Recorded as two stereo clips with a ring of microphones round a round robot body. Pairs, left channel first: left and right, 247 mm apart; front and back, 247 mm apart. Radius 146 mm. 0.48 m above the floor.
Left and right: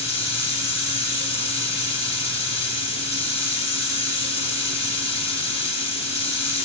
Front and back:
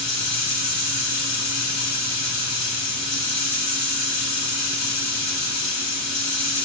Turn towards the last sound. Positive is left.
turn(degrees=-10)